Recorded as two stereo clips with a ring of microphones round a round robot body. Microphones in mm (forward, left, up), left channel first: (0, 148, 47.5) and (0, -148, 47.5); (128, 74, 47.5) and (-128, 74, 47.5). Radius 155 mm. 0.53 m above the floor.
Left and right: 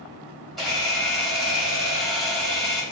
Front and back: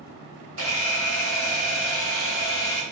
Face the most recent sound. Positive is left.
turn(degrees=180)